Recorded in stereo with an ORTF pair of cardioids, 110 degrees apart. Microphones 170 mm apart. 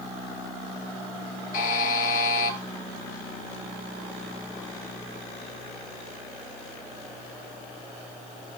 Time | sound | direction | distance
1.5 | a buzzer | 55° left | 5.5 m